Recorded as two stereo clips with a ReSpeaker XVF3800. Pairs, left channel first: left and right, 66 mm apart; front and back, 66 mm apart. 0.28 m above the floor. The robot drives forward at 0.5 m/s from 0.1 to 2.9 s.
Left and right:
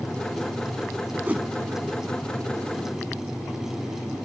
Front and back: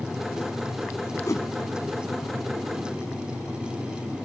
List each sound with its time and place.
1.2 s a whoosh: 25° right, 0.7 m; by 1.5 s 30° right, 0.6 m